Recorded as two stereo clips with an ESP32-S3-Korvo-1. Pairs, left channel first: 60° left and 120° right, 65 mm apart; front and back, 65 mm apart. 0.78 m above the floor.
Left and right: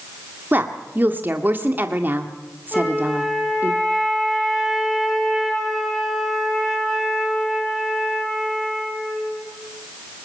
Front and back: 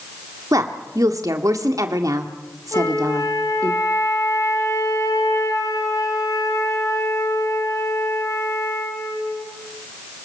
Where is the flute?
25° right, 4.5 m.